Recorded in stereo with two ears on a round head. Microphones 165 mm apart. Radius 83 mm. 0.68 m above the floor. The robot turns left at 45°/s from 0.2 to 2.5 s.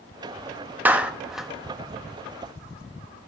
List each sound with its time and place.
0.8 s a clap: 10° right (ahead or behind), 0.6 m; by 1.5 s centre (ahead or behind), 0.6 m